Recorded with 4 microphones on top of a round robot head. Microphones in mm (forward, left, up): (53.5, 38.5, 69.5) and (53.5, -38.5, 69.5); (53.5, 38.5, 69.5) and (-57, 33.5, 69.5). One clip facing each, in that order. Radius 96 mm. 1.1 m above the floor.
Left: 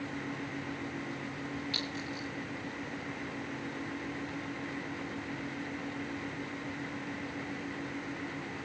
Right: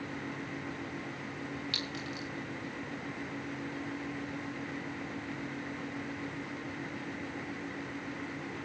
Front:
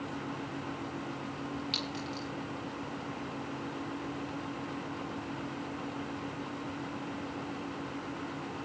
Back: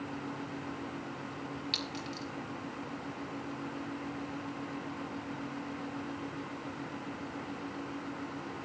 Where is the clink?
125° right, 3 m.